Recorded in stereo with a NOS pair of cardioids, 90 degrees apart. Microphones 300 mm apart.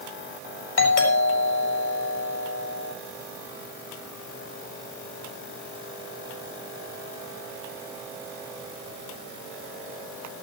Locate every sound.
0.8 s a doorbell: 65° left, 9 m